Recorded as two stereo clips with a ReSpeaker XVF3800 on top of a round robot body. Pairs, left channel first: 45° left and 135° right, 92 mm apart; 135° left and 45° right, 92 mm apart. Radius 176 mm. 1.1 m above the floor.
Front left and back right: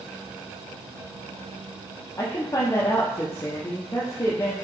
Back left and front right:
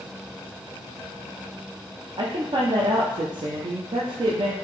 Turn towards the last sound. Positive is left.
turn(degrees=-15)